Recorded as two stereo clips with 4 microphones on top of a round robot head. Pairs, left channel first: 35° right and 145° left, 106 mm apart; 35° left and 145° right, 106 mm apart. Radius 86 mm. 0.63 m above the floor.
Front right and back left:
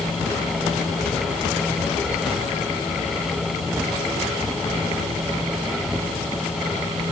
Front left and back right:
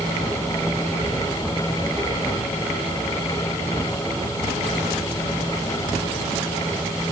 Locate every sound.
Only background noise.